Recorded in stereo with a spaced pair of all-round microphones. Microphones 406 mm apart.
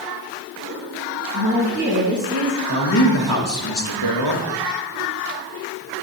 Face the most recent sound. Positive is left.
turn(degrees=60)  # may be behind; listen again after turning